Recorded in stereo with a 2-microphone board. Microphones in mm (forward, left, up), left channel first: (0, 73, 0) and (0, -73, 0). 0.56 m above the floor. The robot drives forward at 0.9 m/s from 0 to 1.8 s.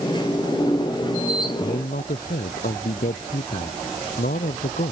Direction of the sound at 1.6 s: 85° left.